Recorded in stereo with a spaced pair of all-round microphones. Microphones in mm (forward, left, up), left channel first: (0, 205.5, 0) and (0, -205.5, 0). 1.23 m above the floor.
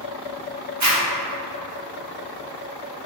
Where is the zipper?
45° right (ahead or behind), 0.7 m.